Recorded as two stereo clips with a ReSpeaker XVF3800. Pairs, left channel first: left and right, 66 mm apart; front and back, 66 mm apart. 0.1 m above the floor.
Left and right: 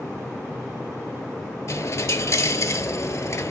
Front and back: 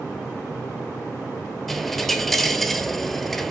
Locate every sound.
1.7 s a dropped coin: 85° left, 0.8 m